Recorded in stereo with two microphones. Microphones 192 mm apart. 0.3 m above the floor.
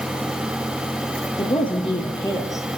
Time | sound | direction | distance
1.4 | a woman speaking | 30° left (ahead or behind) | 6.5 m